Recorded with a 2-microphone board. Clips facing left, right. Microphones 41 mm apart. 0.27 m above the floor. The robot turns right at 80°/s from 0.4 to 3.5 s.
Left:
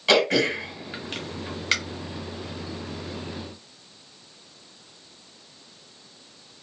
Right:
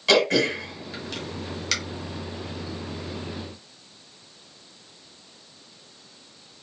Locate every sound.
0.1 s throat clearing: 15° left (ahead or behind), 1.2 m; by 1.7 s 25° left (ahead or behind), 1.2 m